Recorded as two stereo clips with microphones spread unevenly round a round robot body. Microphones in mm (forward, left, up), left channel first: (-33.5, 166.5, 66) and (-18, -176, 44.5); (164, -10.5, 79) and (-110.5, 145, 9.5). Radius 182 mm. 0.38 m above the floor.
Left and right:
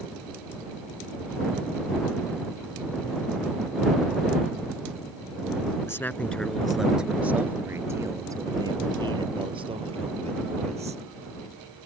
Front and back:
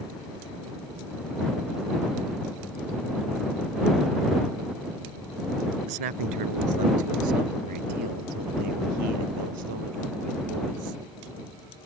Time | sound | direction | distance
5.9 | a man speaking | 175° left | ?